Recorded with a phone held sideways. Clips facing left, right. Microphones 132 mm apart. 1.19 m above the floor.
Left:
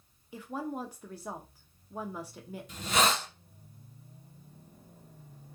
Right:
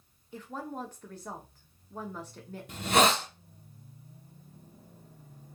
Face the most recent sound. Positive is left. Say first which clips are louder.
# right 4 dB
turn(degrees=-60)  # may be behind; listen again after turning